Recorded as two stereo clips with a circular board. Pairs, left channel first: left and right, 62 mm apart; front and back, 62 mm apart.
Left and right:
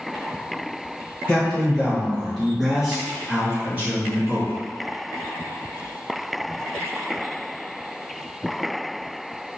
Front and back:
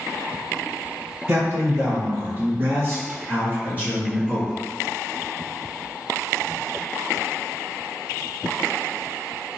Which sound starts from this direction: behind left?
A man speaking, at 1.3 s.